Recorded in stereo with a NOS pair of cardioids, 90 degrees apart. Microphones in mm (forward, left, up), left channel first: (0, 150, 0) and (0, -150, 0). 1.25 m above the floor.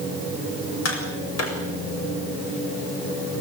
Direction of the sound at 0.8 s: 55° left.